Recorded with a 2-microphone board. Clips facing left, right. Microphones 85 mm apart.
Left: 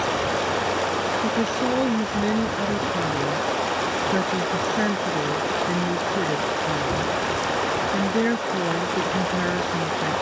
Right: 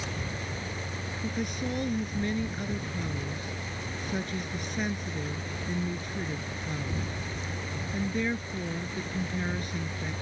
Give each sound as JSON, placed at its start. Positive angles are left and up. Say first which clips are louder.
{"t": 0.0, "sound": "running water", "louder": "left 14 dB", "side_deg": 75}
{"t": 1.2, "sound": "a woman speaking", "louder": "left 10 dB", "side_deg": 45}